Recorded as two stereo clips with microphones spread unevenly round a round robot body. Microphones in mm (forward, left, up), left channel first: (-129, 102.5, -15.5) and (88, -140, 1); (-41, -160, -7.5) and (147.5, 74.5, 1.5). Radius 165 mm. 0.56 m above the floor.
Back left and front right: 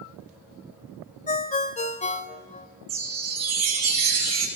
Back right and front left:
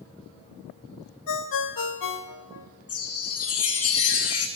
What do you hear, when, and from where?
1.3 s a ringtone: 160° right, 1.6 m
2.9 s a chime: 90° right, 6.5 m